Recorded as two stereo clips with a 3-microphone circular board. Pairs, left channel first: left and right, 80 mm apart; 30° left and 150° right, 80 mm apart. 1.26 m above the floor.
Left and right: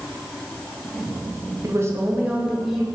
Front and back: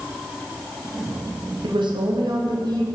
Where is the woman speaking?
140° right, 0.7 m; by 2.9 s straight behind, 1.0 m.